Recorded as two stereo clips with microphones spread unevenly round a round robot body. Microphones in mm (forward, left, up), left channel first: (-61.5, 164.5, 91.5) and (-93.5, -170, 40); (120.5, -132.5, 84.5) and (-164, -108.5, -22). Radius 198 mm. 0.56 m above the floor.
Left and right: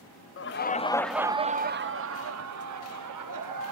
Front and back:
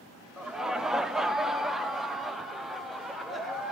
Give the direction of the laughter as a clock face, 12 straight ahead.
8 o'clock.